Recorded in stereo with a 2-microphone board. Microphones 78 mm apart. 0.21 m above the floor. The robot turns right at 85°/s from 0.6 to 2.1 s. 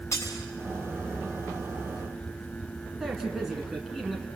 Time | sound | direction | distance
0.1 | breaking glass | 40° left (ahead or behind) | 7 m
3.0 | a man speaking | 5° right (ahead or behind) | 2 m